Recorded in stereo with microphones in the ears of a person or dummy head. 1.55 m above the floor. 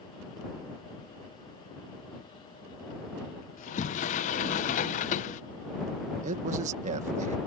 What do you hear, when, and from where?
3.6 s a sliding door: 45° left (ahead or behind)
6.2 s a man speaking: 45° right (ahead or behind)